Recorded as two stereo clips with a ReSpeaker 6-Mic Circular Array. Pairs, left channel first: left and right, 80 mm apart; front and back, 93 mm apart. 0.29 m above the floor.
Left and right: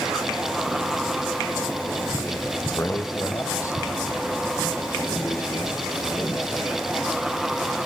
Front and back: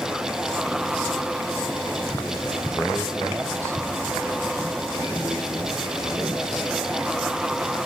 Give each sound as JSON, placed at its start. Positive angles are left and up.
{"t": 2.6, "sound": "a man speaking", "azimuth_deg": 60, "distance_m": 1.0}